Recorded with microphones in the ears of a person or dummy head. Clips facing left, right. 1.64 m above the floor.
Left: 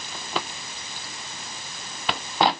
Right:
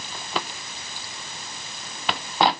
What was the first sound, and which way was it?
Only background noise.